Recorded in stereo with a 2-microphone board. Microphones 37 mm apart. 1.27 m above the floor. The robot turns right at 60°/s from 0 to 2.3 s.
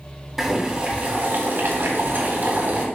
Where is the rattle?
No rattle in this recording.